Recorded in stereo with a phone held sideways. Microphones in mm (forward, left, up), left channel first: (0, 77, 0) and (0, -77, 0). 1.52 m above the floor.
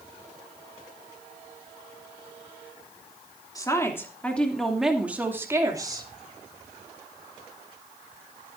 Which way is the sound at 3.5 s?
25° left (ahead or behind).